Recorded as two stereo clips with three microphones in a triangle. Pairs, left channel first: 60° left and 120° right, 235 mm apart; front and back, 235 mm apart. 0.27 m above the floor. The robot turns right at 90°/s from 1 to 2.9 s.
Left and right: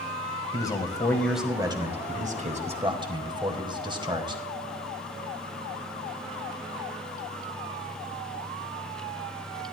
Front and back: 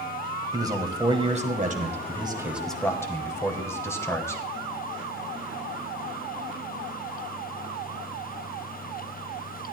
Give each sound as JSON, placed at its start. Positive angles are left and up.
{"t": 0.5, "sound": "a man speaking", "azimuth_deg": 120, "distance_m": 1.7}